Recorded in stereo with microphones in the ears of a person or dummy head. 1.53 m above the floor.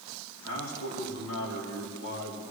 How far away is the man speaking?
About 3.5 m.